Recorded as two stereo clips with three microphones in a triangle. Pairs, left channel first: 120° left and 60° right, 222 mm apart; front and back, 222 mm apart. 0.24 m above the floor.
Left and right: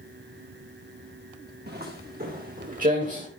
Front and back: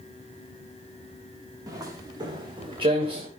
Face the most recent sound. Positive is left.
turn(degrees=-115)